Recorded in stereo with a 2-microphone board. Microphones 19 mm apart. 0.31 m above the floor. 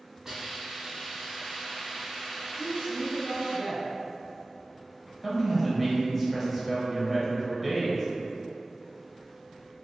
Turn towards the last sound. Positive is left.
turn(degrees=-5)  # may be behind; listen again after turning